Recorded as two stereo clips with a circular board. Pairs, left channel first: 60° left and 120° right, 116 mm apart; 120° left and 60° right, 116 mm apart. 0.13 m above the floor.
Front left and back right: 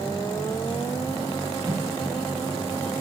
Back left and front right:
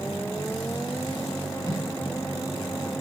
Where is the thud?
Straight behind, 5.5 m.